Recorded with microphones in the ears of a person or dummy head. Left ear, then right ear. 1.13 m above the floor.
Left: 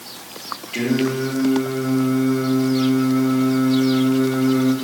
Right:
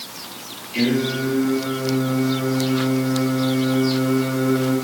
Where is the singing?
60° left (ahead or behind), 2.5 m.